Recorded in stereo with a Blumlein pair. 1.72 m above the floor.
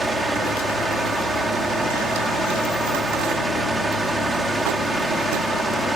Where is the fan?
15° right.